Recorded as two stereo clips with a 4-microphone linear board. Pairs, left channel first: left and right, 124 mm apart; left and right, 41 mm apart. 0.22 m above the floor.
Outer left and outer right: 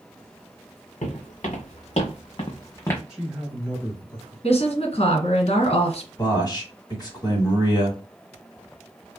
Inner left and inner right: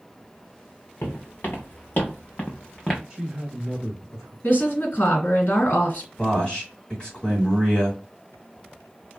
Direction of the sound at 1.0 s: 75° left (ahead or behind).